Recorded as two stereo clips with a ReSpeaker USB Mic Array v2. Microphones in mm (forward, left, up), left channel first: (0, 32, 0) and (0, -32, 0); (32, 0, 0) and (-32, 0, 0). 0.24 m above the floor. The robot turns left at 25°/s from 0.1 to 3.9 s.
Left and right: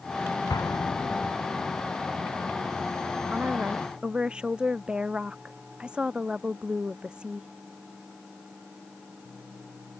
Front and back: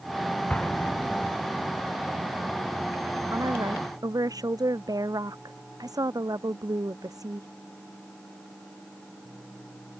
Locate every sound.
0.5 s an explosion: 75° left; by 1.3 s 50° left
3.3 s a woman speaking: 150° right; by 7.5 s 165° right